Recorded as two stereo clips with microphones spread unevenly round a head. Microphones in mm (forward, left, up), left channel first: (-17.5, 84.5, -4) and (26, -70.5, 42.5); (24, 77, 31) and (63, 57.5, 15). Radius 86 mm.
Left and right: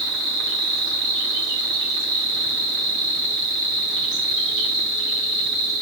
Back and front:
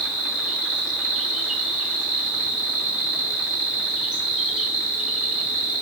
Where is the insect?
55° right, 1.3 m.